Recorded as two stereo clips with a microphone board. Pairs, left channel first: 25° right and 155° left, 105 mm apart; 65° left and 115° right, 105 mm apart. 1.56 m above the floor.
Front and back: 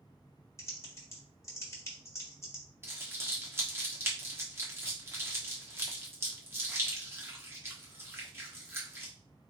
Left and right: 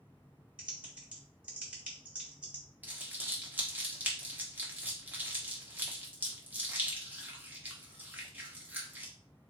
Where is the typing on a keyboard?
45° right, 1.4 m.